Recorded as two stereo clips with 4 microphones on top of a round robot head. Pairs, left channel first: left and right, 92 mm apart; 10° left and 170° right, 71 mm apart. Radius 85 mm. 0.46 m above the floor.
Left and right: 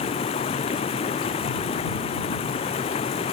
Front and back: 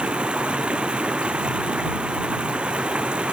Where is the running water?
110° left.